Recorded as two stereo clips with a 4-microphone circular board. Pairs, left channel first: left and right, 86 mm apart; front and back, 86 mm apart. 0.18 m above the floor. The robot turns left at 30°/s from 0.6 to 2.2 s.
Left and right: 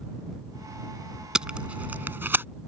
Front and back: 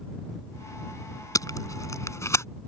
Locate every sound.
1.4 s tape being pulled: 10° right; by 2.5 s 35° right